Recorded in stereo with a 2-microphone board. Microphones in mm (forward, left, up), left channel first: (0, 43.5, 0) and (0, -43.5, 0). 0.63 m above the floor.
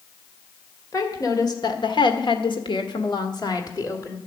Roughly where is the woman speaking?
Left.